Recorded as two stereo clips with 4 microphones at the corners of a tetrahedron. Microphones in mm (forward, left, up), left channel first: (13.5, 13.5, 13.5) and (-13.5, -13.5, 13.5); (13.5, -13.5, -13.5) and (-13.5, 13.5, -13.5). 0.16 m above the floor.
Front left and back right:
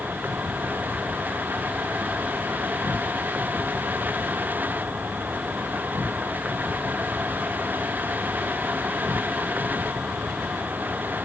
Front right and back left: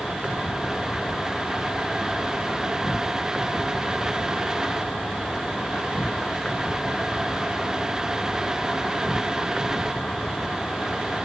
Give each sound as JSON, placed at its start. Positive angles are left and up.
{"t": 0.0, "sound": "an insect", "azimuth_deg": -105}